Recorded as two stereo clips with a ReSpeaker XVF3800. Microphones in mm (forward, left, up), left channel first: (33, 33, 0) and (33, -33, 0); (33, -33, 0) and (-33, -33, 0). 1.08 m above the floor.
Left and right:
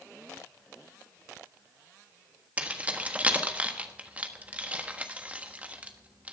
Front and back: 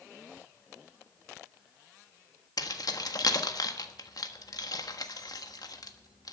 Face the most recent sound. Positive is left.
turn(degrees=-20)